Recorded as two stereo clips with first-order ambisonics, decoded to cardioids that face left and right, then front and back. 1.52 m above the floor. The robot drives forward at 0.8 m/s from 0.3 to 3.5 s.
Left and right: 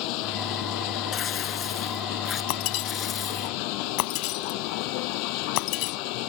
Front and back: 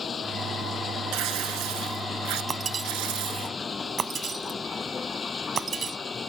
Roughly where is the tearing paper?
Behind left.